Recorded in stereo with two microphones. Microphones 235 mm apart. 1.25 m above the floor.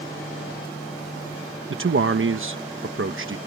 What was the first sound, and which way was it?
A man speaking, 55° right (ahead or behind).